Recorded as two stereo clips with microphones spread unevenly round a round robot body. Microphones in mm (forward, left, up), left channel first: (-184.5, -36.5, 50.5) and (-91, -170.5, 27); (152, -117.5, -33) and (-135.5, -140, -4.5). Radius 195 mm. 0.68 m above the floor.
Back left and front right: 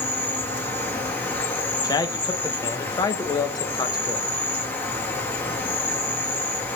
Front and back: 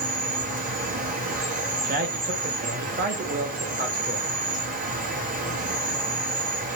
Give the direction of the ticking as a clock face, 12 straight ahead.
I don't hear ticking.